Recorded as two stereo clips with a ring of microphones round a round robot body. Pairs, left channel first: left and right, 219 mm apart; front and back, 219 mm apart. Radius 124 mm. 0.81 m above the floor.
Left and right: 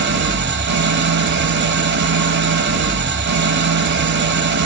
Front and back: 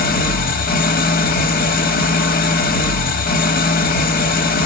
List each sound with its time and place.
0.0 s an engine running: 50° right, 1.0 m